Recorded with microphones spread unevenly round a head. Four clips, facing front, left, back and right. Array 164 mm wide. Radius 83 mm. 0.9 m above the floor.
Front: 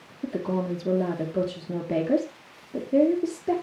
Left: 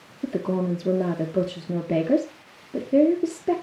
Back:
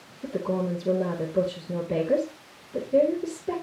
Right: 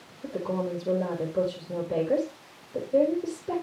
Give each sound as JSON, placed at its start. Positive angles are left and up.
{"t": 0.2, "sound": "a woman speaking", "azimuth_deg": 65, "distance_m": 2.0}